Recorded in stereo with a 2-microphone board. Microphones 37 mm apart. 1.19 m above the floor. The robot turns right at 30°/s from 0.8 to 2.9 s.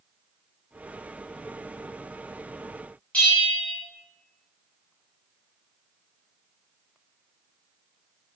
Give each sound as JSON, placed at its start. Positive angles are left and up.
{"t": 3.1, "sound": "a bell", "side_deg": 35, "distance_m": 1.0}